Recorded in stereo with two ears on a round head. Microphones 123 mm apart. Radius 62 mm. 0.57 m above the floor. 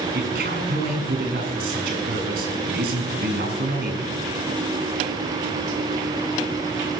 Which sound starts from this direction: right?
A man speaking, at 0.1 s.